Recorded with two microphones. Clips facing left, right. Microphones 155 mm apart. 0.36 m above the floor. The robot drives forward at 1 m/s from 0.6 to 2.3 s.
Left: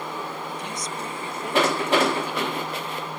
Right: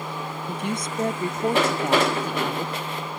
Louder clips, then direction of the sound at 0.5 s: Right 4 dB; 60° right (ahead or behind).